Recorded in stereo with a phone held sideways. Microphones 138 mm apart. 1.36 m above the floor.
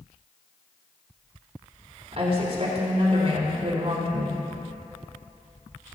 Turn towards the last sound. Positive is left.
turn(degrees=-50)  # may be behind; listen again after turning